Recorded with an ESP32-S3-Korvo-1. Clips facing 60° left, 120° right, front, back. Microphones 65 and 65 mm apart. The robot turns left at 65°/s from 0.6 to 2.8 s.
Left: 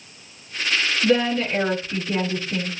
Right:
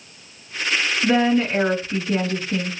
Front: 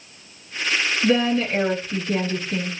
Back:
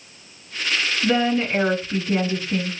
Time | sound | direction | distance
1.0 | a woman speaking | 140° right | 1.3 m